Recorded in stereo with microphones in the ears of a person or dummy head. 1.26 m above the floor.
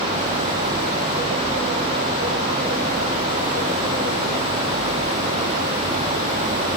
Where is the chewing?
I don't hear chewing.